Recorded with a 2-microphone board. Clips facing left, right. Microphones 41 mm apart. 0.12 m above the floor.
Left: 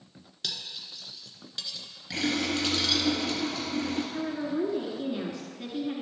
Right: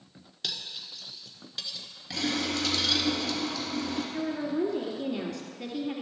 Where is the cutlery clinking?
5° right (ahead or behind), 1.1 m.